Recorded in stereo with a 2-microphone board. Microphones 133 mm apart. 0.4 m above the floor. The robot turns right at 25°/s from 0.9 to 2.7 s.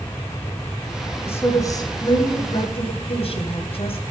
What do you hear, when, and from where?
1.3 s a woman speaking: 20° left, 2.5 m; by 4.0 s 55° left, 2.5 m